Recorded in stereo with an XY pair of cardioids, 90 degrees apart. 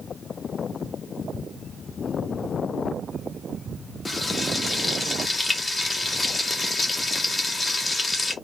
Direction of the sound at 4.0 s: 25° left.